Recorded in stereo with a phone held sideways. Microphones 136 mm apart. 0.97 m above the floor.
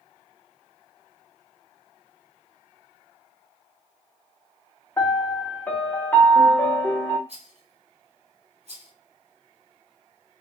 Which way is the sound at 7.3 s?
50° right (ahead or behind).